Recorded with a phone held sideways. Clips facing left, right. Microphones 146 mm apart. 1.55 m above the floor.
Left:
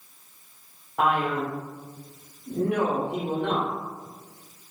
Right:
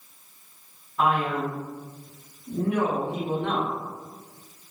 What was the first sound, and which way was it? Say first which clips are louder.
A man speaking: even; 75° left (ahead or behind).